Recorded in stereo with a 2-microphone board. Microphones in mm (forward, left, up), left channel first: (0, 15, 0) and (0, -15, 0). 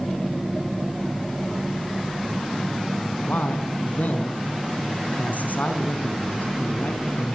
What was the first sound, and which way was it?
A man speaking, 75° left (ahead or behind).